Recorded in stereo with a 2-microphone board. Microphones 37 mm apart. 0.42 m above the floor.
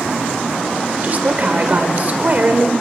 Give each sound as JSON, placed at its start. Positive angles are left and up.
{"t": 1.0, "sound": "a woman speaking", "side_deg": -45, "distance_m": 1.8}